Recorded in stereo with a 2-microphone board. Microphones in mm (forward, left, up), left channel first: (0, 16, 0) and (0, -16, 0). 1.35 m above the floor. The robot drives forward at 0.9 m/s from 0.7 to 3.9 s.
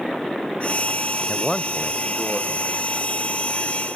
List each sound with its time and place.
1.3 s a man speaking: 25° left (ahead or behind), 0.6 m; by 2.9 s 5° left (ahead or behind), 1.8 m